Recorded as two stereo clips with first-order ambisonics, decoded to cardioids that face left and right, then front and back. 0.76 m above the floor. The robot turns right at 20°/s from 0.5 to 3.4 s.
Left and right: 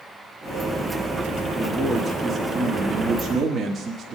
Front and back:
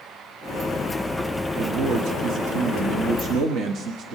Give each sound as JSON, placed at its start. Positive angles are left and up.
{"t": 1.6, "sound": "a man speaking", "azimuth_deg": 170, "distance_m": 1.2}